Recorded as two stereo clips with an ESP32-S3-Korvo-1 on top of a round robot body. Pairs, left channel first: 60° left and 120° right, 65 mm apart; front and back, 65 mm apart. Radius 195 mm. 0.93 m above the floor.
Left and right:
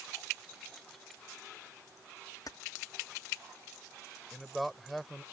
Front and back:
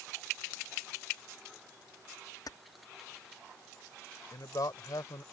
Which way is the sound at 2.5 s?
25° left.